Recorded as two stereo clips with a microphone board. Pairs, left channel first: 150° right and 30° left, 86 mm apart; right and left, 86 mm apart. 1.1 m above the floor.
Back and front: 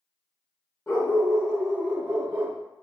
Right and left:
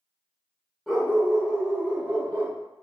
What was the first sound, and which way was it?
A dog barking, straight behind.